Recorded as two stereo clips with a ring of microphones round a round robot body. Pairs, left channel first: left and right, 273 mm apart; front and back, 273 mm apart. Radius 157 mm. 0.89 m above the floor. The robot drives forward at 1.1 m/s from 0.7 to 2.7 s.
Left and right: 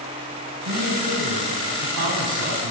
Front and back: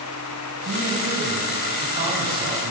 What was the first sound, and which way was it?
A man speaking, 110° right.